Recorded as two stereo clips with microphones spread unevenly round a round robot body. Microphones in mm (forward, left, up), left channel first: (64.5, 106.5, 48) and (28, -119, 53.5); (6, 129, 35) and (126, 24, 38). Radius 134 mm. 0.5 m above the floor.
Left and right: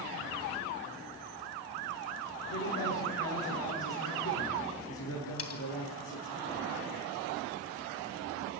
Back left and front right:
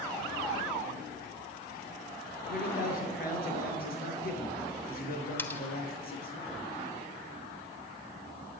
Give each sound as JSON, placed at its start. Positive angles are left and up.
{"t": 2.5, "sound": "a man speaking", "azimuth_deg": 115, "distance_m": 8.0}
{"t": 5.4, "sound": "cutlery clinking", "azimuth_deg": 60, "distance_m": 2.5}